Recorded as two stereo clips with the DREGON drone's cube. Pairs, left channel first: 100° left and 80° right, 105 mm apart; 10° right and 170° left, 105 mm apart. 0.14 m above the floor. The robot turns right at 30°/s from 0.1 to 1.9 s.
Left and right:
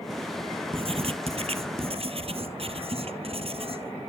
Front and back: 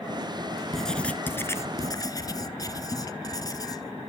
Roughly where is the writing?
Right.